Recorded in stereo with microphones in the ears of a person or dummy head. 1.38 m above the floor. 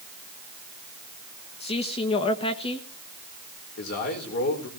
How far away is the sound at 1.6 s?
About 1.7 m.